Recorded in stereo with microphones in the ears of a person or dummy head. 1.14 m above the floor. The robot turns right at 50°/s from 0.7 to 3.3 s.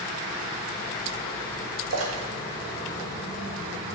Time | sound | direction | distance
1.9 | a splash | 65° right (ahead or behind) | 1.8 m